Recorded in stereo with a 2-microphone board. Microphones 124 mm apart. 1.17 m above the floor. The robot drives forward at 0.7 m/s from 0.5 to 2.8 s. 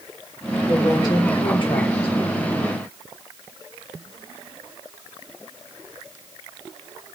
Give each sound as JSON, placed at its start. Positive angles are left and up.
{"t": 0.7, "sound": "a woman speaking", "side_deg": 30, "distance_m": 2.0}